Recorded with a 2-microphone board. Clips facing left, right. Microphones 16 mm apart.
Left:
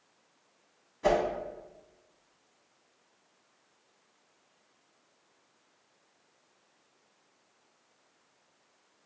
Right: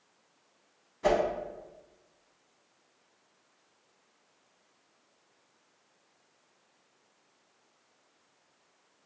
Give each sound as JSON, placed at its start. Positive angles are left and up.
{"t": 1.0, "sound": "a whoosh", "side_deg": -10, "distance_m": 0.5}